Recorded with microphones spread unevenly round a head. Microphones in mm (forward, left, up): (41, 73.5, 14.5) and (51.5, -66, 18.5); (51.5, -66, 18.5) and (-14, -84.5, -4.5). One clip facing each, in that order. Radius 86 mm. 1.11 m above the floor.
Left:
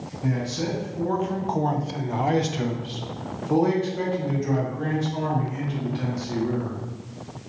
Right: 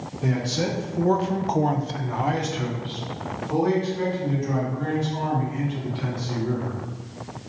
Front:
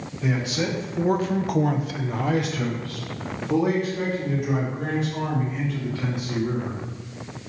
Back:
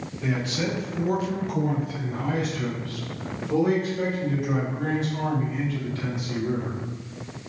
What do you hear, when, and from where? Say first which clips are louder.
0.2 s a man speaking: right 2 dB, front 2 dB; 70° right, 1.0 m; by 6.8 s 75° left, 3 m